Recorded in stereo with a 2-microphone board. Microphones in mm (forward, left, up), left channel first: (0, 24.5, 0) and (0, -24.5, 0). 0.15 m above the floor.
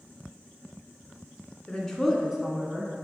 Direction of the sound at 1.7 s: 10° left (ahead or behind).